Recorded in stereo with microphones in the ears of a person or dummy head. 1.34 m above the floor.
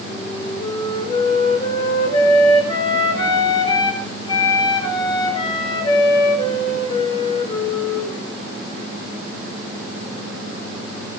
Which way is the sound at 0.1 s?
25° left (ahead or behind).